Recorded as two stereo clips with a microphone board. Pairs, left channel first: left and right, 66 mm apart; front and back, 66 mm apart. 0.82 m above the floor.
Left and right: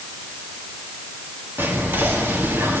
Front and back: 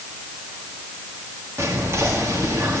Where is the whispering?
140° right, 1.6 m.